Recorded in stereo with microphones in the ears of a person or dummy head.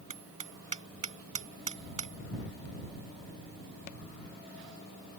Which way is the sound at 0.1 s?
35° right (ahead or behind).